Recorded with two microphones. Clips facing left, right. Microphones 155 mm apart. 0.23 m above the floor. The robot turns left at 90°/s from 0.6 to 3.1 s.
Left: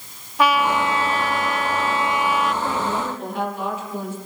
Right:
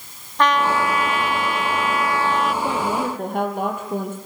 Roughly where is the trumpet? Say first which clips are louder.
Even; behind.